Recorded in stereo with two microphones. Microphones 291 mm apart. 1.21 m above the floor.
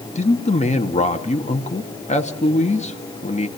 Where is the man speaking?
25° left (ahead or behind), 1.7 m.